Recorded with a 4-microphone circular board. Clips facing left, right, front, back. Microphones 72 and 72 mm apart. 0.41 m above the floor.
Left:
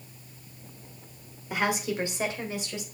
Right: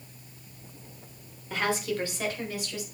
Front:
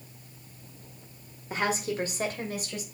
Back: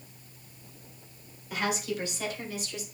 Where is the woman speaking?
25° left, 1.4 m; by 2.8 s 30° left, 2 m.